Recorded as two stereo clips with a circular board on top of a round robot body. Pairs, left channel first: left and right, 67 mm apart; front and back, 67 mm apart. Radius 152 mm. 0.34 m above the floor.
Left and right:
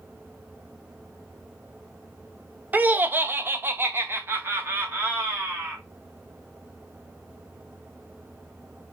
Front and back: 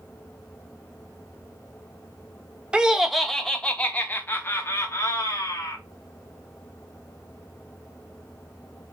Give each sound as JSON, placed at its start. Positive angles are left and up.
{"t": 2.7, "sound": "laughter", "azimuth_deg": -120, "distance_m": 1.0}